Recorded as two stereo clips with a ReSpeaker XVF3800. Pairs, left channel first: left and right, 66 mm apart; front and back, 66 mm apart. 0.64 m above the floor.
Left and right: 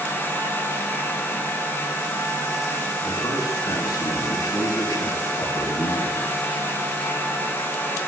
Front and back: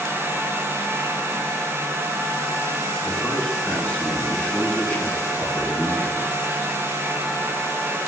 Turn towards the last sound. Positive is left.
turn(degrees=65)